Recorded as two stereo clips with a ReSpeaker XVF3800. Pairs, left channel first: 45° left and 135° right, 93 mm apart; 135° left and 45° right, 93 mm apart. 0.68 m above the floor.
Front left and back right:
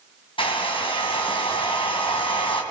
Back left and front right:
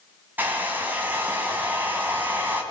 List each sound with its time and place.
0.4 s a hair dryer: 25° left, 3.5 m